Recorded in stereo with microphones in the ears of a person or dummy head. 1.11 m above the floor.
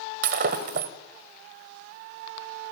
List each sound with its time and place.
0.2 s breaking glass: 50° right (ahead or behind), 1.2 m